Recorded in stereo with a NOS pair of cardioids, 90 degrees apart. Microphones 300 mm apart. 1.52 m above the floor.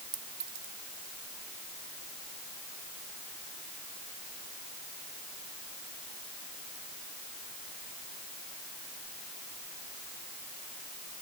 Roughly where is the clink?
Ahead right.